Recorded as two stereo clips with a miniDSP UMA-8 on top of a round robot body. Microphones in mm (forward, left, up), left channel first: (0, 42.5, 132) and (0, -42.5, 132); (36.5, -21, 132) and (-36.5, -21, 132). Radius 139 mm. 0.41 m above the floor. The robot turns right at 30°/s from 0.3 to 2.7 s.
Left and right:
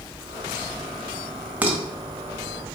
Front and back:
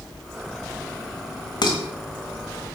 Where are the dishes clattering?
15° right, 1.7 m; by 1.8 s 10° right, 1.7 m.